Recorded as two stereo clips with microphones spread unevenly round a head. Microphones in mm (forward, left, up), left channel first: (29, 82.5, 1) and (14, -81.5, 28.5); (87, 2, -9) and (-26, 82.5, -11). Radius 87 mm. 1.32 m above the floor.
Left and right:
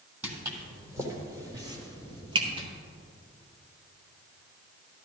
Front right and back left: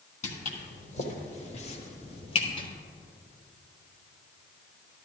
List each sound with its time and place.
0.2 s footsteps: 25° right, 2.5 m; by 2.7 s 70° right, 1.7 m